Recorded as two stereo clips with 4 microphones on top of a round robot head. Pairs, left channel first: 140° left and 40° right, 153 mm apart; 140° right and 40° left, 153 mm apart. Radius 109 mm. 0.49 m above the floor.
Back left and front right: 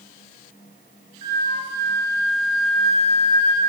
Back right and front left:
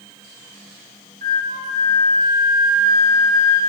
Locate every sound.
1.2 s a flute: 10° left, 3 m